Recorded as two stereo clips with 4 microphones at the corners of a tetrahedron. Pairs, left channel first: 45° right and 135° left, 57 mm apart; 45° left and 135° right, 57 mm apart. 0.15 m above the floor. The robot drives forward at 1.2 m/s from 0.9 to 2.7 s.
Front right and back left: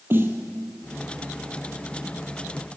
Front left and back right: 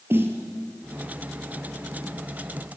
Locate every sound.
0.1 s a snare drum: straight behind, 2.5 m